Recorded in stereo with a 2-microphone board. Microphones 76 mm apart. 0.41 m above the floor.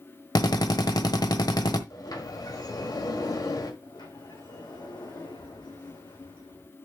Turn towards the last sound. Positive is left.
turn(degrees=80)